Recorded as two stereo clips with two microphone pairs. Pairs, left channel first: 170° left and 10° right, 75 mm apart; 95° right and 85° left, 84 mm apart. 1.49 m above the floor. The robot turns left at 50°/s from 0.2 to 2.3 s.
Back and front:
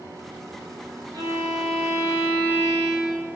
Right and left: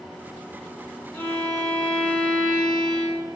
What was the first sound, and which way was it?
A violin, 25° right.